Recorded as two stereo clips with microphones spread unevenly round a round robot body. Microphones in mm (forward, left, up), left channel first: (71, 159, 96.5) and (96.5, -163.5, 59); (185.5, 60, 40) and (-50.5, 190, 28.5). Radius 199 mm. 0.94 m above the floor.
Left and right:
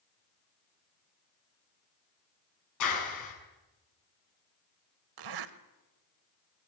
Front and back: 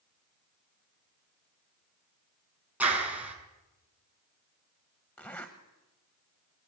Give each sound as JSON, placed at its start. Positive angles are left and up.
{"t": 2.8, "sound": "a clap", "azimuth_deg": 65, "distance_m": 7.0}
{"t": 5.2, "sound": "a zipper", "azimuth_deg": -110, "distance_m": 1.0}